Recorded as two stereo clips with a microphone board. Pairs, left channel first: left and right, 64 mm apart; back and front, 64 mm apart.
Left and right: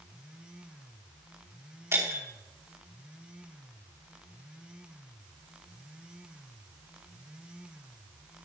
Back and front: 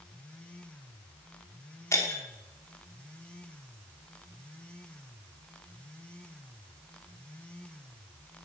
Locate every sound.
1.9 s breaking glass: 135° right, 4.5 m